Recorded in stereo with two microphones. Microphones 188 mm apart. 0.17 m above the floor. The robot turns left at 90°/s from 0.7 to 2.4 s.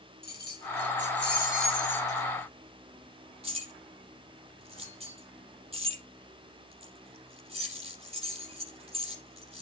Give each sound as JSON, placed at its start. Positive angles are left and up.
{"t": 0.2, "sound": "keys jangling", "side_deg": 55, "distance_m": 4.5}